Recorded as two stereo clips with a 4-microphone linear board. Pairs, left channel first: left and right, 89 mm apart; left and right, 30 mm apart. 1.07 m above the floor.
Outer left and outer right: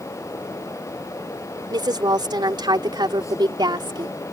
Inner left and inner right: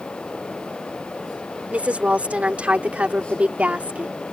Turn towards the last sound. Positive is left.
turn(degrees=-55)  # may be behind; listen again after turning